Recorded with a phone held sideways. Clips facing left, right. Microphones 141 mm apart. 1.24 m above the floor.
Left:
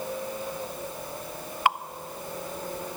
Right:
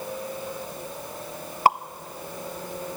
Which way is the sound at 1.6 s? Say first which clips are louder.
Right 5 dB; 40° right (ahead or behind).